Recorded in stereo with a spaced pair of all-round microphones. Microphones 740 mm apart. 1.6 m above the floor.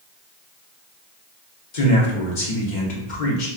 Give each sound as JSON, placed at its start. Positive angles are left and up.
{"t": 1.7, "sound": "a man speaking", "side_deg": 80, "distance_m": 1.0}